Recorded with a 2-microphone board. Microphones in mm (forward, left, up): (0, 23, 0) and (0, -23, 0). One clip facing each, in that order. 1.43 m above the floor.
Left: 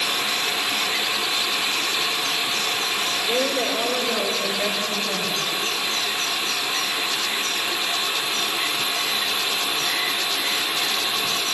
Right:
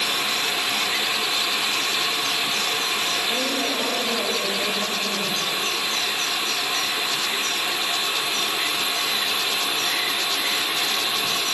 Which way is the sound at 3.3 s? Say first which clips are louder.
Left 2 dB; 85° left.